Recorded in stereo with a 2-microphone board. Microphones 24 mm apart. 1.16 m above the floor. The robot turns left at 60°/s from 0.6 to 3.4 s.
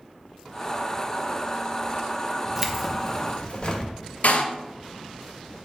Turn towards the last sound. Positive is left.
turn(degrees=70)  # may be behind; listen again after turning